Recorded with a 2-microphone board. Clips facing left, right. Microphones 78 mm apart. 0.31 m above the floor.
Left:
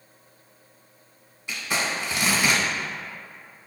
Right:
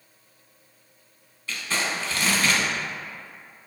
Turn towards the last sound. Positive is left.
turn(degrees=15)  # may be behind; listen again after turning